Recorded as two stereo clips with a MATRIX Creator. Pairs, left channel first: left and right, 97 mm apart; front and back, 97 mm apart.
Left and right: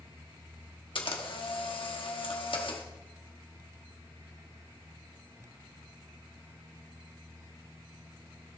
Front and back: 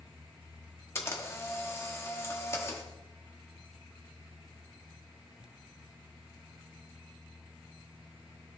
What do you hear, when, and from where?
0.9 s a camera shutter: 65° left, 1.2 m